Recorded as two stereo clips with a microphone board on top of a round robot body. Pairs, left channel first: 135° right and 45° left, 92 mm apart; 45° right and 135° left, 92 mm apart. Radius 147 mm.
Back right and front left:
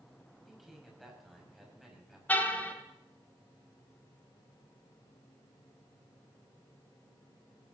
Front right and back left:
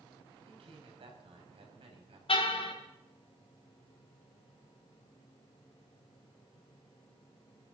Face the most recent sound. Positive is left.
turn(degrees=-60)